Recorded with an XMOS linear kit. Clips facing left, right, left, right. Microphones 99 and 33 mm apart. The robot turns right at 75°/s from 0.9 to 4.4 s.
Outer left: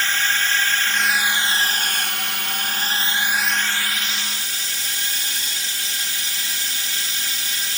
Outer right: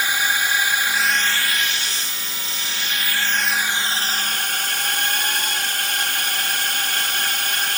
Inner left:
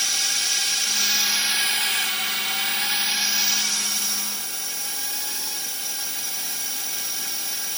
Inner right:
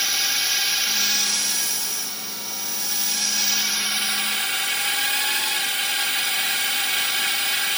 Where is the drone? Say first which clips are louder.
Outer right 1 dB, inner right 2 dB; 15° right; by 7.8 s 110° right.